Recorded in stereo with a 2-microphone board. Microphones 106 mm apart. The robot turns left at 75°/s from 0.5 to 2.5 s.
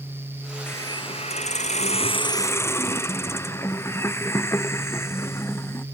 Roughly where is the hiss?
Behind.